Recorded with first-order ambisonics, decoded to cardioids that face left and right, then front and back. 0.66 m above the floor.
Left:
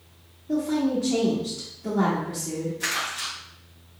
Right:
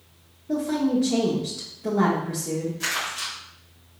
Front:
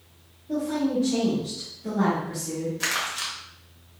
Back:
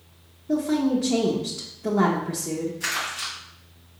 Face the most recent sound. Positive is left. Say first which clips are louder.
# left 1 dB, front 2 dB
turn(degrees=-5)